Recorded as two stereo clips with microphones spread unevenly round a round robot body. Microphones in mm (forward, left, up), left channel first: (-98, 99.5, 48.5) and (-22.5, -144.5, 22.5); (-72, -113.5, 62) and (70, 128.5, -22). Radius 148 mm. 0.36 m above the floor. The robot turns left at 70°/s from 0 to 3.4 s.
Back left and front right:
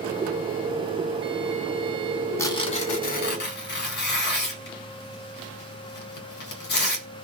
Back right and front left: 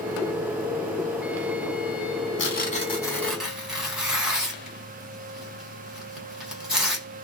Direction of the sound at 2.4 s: 170° right.